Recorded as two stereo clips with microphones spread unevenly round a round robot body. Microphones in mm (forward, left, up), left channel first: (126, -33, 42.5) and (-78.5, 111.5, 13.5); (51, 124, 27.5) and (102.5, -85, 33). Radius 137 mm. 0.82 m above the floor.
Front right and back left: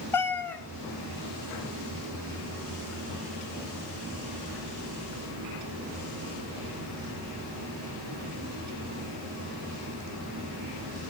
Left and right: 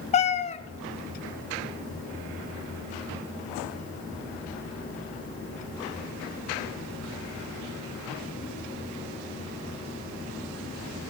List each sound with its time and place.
0.1 s a cat meowing: 45° left, 0.7 m